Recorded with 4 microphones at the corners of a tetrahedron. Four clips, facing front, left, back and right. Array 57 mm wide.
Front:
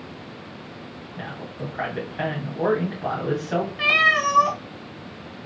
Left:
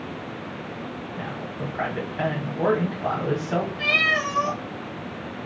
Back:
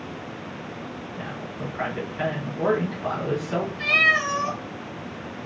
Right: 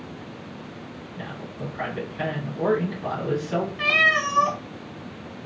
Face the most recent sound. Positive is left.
turn(degrees=-30)